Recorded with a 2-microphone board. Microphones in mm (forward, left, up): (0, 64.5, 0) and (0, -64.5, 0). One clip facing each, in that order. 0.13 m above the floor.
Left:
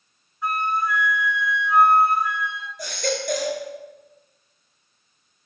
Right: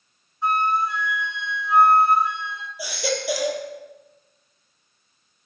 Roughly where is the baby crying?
Centre.